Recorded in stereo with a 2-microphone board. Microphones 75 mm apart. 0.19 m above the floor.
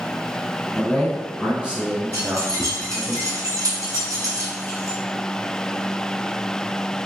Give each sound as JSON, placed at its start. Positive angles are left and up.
{"t": 0.8, "sound": "a man speaking", "side_deg": -5, "distance_m": 1.8}
{"t": 2.1, "sound": "keys jangling", "side_deg": -50, "distance_m": 1.3}